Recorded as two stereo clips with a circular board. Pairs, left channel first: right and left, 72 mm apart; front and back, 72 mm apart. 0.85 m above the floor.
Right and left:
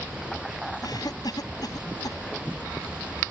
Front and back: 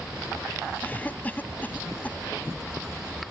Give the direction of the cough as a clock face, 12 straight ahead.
2 o'clock.